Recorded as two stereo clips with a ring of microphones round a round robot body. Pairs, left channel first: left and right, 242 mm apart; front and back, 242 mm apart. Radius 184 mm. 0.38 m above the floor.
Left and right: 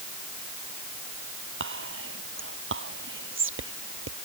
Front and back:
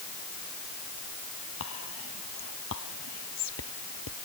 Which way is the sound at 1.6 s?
55° right.